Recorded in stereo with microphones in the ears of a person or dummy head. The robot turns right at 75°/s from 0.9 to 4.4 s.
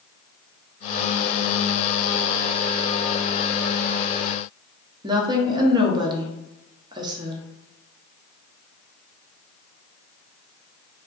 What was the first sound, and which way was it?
A woman speaking, 20° right (ahead or behind).